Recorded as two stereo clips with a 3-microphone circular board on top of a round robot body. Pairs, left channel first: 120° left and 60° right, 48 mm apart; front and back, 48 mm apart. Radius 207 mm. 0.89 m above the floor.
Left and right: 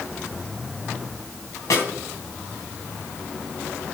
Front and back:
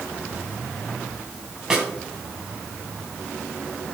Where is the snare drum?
100° left, 3 m.